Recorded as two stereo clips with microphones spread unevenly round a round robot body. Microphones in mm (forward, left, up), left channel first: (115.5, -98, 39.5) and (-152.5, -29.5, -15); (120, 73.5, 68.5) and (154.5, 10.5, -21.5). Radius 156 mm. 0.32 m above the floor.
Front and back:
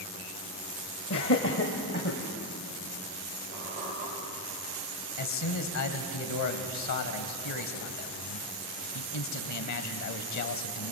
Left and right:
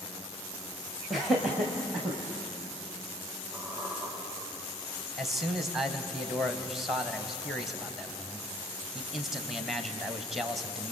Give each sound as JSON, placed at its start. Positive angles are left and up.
{"t": 1.1, "sound": "laughter", "azimuth_deg": -50, "distance_m": 1.8}
{"t": 3.5, "sound": "a squeak", "azimuth_deg": -130, "distance_m": 6.0}
{"t": 5.2, "sound": "a man speaking", "azimuth_deg": -30, "distance_m": 2.0}